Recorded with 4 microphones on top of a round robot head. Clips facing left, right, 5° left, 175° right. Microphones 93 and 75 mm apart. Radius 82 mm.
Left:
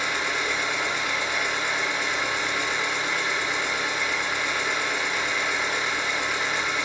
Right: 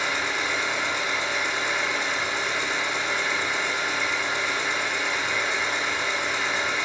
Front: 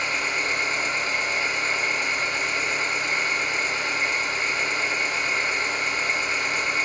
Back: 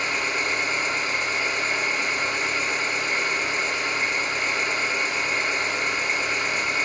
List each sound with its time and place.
0.0 s an engine running: 100° right, 0.9 m